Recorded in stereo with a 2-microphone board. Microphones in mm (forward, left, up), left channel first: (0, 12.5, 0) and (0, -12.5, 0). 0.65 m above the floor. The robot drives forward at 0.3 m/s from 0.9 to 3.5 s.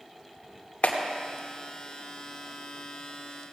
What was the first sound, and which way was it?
A clap, 60° left (ahead or behind).